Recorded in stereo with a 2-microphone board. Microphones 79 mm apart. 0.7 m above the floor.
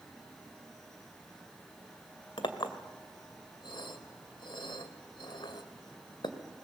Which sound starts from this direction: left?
A clink, at 2.4 s.